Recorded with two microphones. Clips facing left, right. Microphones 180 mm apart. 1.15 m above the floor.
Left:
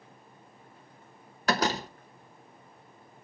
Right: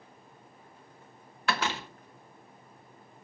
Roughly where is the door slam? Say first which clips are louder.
Left 4 dB; left.